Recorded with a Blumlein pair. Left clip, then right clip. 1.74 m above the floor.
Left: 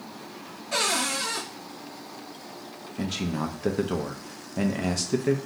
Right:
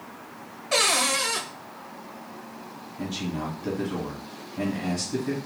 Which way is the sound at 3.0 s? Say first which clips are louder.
Left 2 dB; 55° left.